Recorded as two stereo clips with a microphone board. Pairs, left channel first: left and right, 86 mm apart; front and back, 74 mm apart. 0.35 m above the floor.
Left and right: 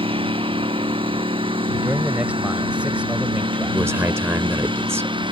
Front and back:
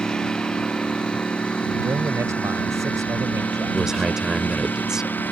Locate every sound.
0.0 s a lawn mower: 80° right; by 5.3 s 65° right
1.8 s a man speaking: 160° right
3.7 s a man speaking: 105° right